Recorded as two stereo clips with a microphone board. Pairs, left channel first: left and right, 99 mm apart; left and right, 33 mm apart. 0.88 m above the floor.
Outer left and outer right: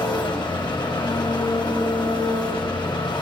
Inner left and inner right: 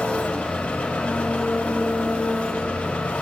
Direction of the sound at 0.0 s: 50° left (ahead or behind).